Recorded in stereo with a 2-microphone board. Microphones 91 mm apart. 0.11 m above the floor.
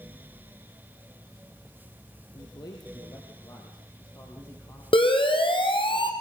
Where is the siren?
70° left (ahead or behind), 4.5 m; by 6.1 s 65° left (ahead or behind), 4 m.